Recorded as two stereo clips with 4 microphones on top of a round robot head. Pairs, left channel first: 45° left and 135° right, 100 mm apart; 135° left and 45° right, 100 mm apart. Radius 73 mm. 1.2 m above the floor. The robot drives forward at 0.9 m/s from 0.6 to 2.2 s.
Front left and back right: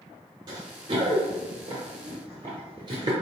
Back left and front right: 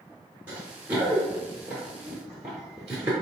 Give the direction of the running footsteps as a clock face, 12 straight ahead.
4 o'clock.